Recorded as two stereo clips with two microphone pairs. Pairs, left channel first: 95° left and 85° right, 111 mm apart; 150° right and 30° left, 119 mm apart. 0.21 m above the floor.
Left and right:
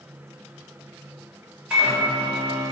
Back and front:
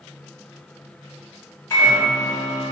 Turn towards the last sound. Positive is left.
turn(degrees=-150)